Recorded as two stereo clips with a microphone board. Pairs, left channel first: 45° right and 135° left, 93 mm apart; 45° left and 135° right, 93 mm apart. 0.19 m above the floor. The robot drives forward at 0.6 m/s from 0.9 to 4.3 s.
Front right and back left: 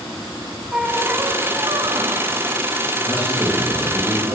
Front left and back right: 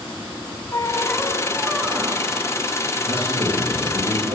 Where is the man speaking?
155° right, 3.5 m; by 4.3 s 160° right, 4 m.